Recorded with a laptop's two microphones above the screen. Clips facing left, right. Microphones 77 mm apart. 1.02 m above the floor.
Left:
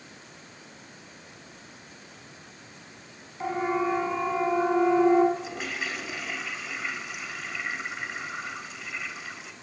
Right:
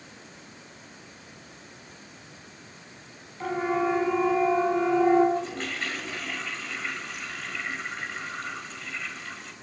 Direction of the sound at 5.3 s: 5° left (ahead or behind).